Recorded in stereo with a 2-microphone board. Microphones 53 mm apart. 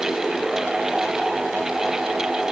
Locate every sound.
Only background noise.